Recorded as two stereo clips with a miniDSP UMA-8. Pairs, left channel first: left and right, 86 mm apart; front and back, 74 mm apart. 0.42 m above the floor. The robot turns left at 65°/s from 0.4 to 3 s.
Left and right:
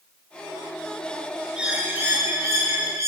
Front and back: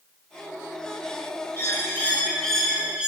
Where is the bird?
15° right, 1.1 m; by 3.1 s 110° right, 1.1 m.